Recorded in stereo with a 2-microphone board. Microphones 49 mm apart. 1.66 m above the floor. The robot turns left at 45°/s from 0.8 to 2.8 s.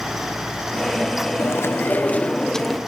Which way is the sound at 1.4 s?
65° left.